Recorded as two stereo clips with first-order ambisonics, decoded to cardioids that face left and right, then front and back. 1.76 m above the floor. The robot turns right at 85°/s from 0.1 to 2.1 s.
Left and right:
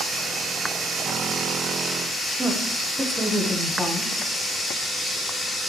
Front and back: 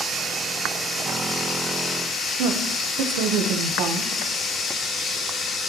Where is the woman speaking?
175° right, 1.3 m.